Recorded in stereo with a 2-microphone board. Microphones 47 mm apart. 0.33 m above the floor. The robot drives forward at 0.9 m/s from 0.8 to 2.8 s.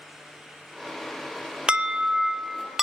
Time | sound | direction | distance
1.7 | an alarm | 20° right (ahead or behind) | 0.6 m